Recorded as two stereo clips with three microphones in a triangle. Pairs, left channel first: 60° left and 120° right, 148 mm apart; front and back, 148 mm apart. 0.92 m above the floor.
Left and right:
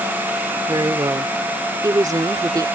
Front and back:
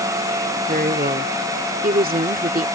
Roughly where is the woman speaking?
Behind.